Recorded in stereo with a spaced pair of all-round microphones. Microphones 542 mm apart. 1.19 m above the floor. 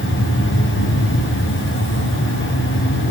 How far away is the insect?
About 3 m.